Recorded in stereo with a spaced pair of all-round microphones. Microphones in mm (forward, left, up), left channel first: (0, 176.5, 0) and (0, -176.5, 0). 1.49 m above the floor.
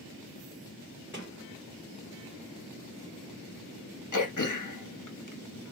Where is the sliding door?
10° left (ahead or behind), 2.5 m.